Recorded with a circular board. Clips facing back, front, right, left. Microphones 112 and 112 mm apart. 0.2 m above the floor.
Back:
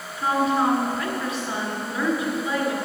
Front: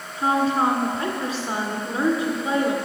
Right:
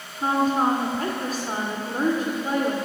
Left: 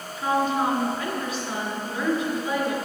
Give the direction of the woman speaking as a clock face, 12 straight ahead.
2 o'clock.